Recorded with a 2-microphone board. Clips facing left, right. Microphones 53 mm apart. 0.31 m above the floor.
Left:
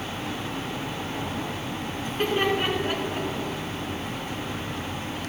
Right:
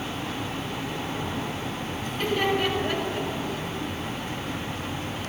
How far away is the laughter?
About 3.5 m.